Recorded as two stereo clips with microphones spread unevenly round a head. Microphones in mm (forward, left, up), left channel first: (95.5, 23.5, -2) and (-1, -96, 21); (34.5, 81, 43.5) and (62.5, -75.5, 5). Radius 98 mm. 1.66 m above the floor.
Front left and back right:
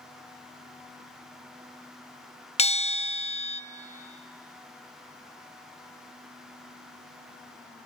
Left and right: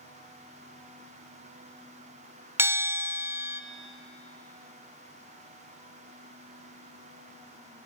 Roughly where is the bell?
Ahead.